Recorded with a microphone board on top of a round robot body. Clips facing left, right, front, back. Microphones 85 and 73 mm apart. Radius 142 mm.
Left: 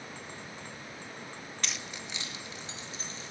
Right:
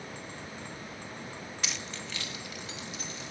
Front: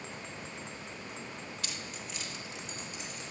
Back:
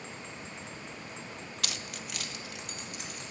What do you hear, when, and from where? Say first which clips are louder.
1.6 s keys jangling: even, back 2 dB; 175° right, 0.5 m; by 3.3 s 150° left, 2.0 m